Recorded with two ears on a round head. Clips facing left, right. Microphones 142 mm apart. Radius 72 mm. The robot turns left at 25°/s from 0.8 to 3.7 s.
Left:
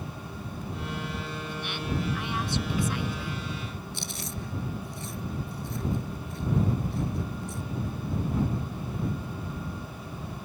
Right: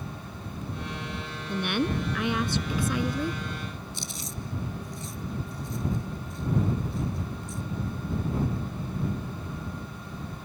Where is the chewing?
55° left (ahead or behind).